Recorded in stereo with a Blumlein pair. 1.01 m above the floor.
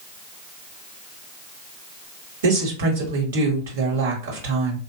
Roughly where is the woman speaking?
Ahead right.